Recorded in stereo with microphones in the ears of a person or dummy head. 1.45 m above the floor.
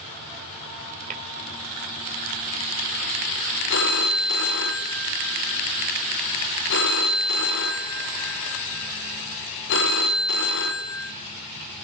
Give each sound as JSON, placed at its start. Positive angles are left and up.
{"t": 1.1, "sound": "tapping", "side_deg": -40, "distance_m": 2.0}
{"t": 3.7, "sound": "a phone ringing", "side_deg": 55, "distance_m": 1.6}